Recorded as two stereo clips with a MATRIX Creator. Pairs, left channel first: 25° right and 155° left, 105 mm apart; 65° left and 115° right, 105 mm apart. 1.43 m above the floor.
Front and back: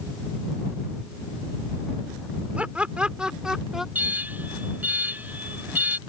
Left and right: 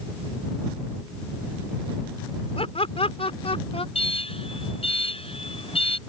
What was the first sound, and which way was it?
Laughter, 80° left.